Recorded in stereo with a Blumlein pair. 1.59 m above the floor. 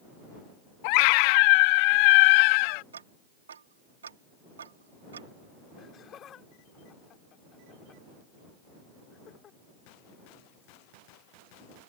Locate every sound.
0.8 s a scream: 45° left
2.9 s ticking: 70° right
5.8 s laughter: 25° left